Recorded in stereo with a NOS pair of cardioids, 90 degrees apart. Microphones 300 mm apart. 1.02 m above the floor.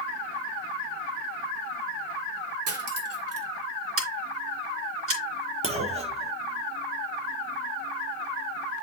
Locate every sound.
2.7 s cutlery clinking: 50° right, 1.7 m
4.0 s scissors: 50° right, 3.5 m
5.6 s a clunk: 20° right, 1.4 m